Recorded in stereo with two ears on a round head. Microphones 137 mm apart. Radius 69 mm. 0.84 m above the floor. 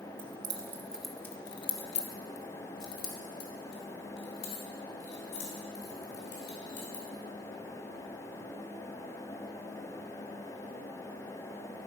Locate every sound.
0.2 s keys jangling: 35° right (ahead or behind), 0.9 m; by 7.0 s 85° left, 4 m